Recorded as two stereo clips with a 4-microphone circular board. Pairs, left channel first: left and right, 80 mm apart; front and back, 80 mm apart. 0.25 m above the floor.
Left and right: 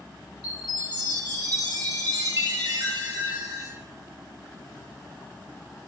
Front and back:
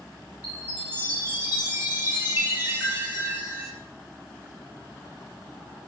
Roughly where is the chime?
Behind right.